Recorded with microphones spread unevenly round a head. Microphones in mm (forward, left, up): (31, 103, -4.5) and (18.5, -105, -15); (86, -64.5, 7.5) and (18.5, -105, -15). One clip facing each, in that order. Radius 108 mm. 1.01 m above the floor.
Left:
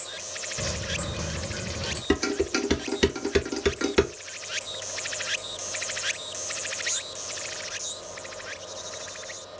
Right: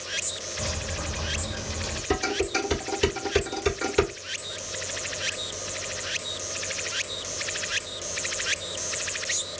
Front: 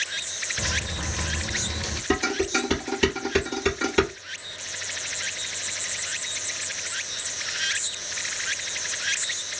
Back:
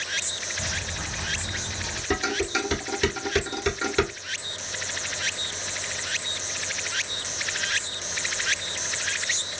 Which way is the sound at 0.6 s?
30° left.